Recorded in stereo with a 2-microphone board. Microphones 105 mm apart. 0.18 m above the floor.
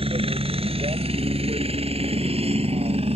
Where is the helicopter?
60° right (ahead or behind); by 3.2 s 70° right (ahead or behind).